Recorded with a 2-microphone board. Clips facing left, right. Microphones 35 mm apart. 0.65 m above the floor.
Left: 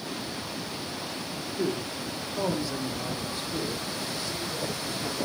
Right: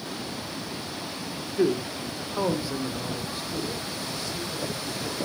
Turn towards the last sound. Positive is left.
turn(degrees=15)  # may be behind; listen again after turning